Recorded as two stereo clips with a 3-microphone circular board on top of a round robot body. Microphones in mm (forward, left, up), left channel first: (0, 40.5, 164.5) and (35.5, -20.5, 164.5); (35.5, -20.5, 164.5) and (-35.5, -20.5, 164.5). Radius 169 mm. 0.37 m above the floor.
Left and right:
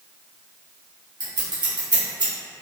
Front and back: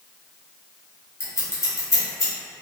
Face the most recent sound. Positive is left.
turn(degrees=-50)